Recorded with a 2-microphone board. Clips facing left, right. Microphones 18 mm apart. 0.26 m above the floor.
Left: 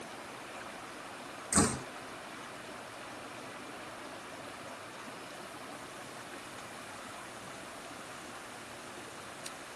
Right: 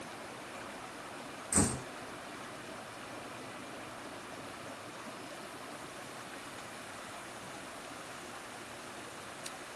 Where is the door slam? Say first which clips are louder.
Left 3 dB; 70° left (ahead or behind).